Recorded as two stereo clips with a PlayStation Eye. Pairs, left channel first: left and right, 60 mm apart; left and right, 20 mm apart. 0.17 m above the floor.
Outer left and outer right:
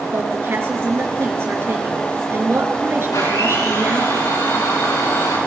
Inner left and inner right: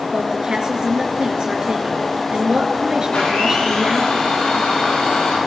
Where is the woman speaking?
45° right (ahead or behind), 3 m.